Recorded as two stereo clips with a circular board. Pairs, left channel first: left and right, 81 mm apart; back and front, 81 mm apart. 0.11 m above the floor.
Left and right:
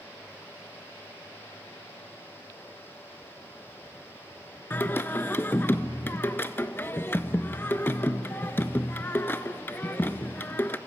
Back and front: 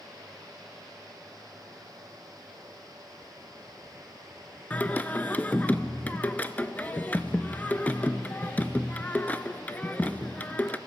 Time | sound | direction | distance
4.7 | singing | 130° left | 0.6 m